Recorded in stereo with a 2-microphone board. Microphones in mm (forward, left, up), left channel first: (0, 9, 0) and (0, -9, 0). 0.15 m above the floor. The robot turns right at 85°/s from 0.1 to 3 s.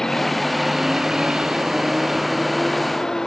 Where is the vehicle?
45° left (ahead or behind); by 3.3 s 40° left (ahead or behind).